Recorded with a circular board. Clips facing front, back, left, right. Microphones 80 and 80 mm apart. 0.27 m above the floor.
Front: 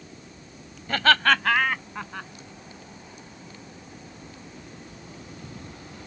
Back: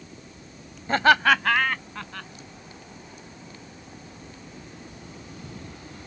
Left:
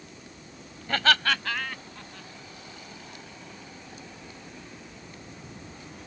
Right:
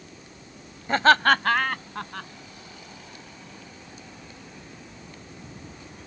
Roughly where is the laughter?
Behind right.